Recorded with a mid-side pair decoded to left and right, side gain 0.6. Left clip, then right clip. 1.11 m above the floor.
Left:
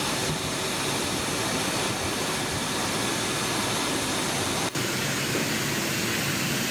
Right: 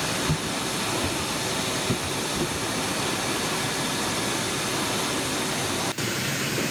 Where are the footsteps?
35° right, 5.5 m; by 2.5 s 55° right, 7.5 m.